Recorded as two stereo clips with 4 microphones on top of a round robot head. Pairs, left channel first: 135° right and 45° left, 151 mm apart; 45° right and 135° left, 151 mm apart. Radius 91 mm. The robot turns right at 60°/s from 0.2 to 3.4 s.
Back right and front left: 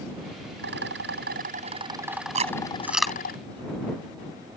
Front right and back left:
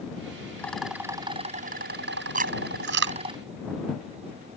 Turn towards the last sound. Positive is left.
turn(degrees=155)